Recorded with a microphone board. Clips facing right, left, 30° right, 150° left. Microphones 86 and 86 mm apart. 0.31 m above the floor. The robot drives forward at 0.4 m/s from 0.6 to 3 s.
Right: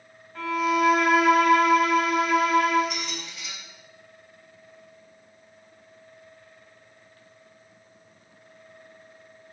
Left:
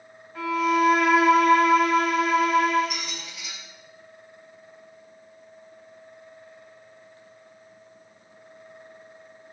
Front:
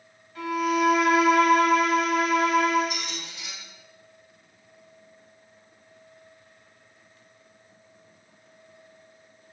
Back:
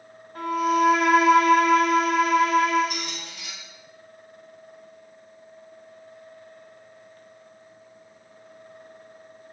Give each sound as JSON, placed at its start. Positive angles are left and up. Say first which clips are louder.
{"t": 0.3, "sound": "a violin", "louder": "left 1 dB, back 3 dB", "azimuth_deg": 175, "distance_m": 0.7}
{"t": 2.9, "sound": "a squeak", "louder": "right 1 dB, back 1 dB", "azimuth_deg": 175, "distance_m": 0.7}